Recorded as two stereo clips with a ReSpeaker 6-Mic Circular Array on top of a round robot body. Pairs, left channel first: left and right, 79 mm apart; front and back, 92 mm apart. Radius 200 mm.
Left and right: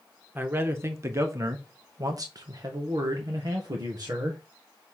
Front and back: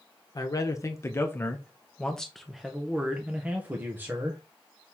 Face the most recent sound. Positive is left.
turn(degrees=-120)